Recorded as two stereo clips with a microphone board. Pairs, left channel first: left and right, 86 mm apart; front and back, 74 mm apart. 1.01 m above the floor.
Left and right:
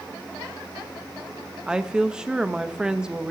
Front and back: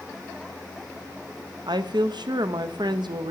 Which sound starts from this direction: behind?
A woman speaking, at 1.7 s.